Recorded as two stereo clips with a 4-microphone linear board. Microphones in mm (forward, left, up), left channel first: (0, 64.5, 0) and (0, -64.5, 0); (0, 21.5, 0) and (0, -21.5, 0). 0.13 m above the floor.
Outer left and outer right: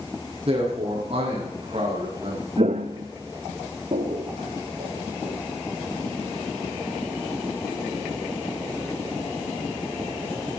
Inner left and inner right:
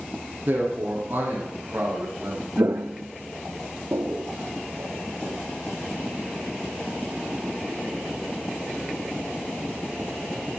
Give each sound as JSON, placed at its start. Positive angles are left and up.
{"t": 0.5, "sound": "a man speaking", "side_deg": -50, "distance_m": 5.5}
{"t": 2.6, "sound": "footsteps", "side_deg": -55, "distance_m": 0.6}